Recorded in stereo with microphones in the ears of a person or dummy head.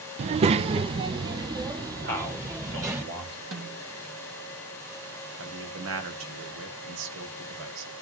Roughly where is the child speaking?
Right.